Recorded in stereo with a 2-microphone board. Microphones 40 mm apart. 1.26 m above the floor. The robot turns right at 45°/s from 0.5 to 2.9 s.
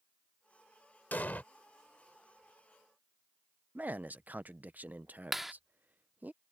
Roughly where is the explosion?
Left.